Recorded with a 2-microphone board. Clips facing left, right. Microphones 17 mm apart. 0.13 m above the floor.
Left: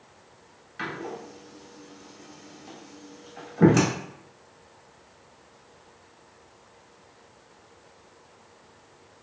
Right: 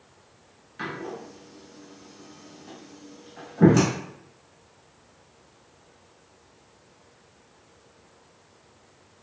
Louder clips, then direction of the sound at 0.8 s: Even; 15° left (ahead or behind).